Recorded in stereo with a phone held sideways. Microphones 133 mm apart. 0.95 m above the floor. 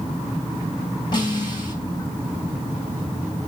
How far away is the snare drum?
About 5 m.